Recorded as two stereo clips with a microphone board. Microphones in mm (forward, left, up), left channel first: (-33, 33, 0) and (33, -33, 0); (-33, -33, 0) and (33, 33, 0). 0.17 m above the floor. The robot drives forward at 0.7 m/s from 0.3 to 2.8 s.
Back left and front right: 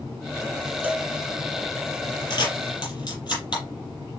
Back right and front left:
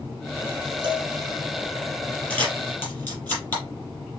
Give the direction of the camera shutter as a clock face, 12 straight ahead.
7 o'clock.